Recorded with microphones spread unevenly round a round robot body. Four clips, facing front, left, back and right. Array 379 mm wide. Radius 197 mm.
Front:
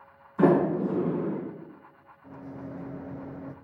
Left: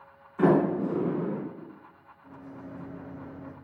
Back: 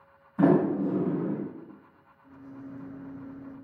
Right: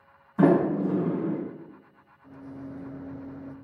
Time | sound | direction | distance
0.4 | a sliding door | 110° right | 2.5 m
2.2 | a microwave | 10° left | 0.5 m